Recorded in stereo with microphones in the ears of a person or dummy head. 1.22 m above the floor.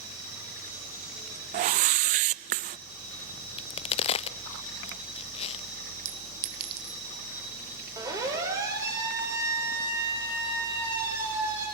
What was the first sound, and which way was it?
A whoosh, 40° right (ahead or behind).